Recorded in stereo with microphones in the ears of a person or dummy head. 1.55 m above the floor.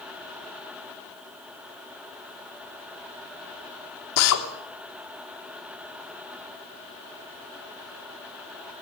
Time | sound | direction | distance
4.2 | a drill | 80° left | 3 m